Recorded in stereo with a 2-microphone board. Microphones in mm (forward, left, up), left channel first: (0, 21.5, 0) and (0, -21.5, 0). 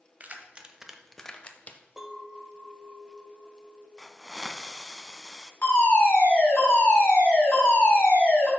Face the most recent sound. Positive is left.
turn(degrees=55)  # may be behind; listen again after turning